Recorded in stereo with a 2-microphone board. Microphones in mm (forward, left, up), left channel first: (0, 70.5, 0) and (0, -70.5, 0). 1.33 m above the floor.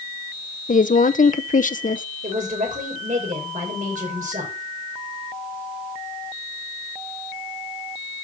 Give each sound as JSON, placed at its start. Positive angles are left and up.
{"t": 0.7, "sound": "a woman speaking", "side_deg": 70, "distance_m": 0.7}
{"t": 2.2, "sound": "a woman speaking", "side_deg": -70, "distance_m": 5.0}